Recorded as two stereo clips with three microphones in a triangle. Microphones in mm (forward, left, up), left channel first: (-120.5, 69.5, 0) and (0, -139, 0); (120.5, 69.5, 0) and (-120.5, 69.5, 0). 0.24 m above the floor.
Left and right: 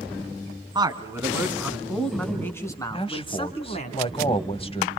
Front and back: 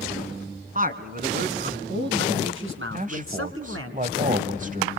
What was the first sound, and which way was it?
A man speaking, 130° right.